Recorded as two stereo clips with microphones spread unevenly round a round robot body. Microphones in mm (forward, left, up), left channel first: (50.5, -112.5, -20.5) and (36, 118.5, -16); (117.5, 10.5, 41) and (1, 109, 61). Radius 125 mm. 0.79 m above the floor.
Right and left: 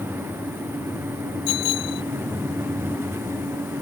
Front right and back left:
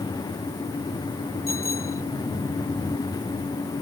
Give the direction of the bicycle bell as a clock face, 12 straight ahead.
4 o'clock.